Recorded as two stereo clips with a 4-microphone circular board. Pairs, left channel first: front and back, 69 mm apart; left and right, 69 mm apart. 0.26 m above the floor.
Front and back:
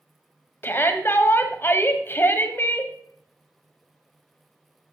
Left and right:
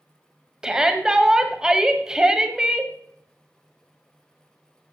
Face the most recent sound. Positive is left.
turn(degrees=-20)